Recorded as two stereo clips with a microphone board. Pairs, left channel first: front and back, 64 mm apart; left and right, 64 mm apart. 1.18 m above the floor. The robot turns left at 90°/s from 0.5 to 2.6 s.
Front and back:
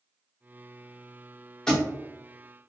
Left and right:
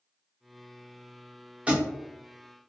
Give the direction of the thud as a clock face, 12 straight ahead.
2 o'clock.